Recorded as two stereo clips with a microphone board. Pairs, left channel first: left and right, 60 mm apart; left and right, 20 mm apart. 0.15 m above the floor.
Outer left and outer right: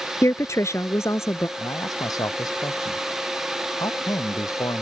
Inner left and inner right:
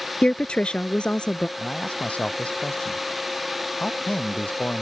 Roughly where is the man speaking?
Left.